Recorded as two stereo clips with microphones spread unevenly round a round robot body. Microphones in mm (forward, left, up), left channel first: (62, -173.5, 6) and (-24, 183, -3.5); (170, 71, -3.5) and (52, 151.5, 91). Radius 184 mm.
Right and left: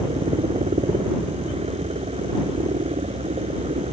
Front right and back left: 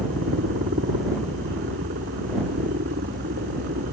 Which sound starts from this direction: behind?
A helicopter, at 0.0 s.